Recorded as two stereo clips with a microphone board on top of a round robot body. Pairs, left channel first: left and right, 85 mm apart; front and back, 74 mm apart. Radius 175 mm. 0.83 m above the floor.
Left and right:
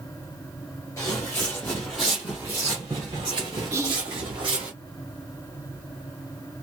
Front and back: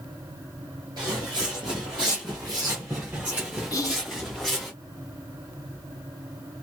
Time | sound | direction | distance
1.0 | footsteps | 145° left | 1.3 m
3.7 | whispering | 40° right | 1.6 m